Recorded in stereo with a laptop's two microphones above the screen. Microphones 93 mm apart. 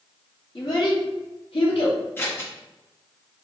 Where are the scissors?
25° left (ahead or behind), 1.5 m.